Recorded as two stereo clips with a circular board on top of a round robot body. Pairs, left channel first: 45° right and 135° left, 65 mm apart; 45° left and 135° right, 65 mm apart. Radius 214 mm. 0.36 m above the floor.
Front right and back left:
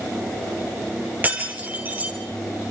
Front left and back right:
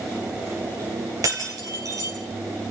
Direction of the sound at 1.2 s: 160° right.